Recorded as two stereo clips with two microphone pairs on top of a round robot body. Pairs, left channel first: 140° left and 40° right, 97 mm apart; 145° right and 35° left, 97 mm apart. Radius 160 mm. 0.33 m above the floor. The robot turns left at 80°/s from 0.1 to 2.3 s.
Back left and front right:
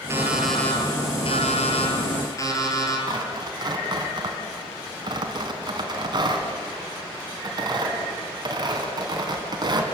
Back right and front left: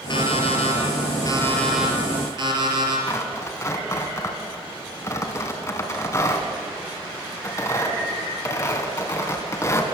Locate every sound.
0.1 s an alarm clock: 105° right, 4.5 m; by 3.0 s 80° left, 4.5 m
3.1 s tearing paper: 85° right, 3.5 m